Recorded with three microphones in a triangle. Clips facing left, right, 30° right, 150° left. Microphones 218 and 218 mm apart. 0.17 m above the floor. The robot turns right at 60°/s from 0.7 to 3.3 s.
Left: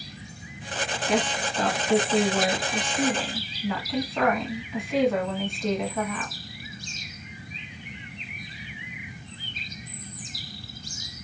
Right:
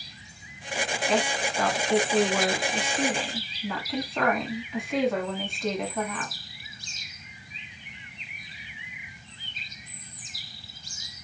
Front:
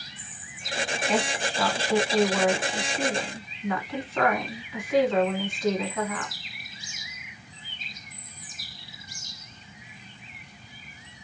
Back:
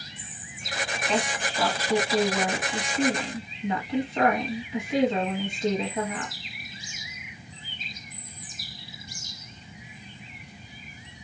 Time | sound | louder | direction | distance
1.1 | a woman speaking | left 1 dB, even | 45° left | 1.4 m